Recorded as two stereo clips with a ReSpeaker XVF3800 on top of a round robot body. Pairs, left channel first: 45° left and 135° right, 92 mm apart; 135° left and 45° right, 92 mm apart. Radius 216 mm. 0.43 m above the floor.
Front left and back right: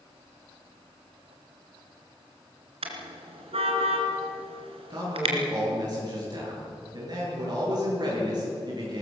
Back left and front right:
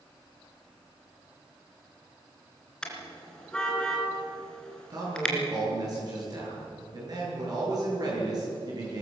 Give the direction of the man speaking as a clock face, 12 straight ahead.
3 o'clock.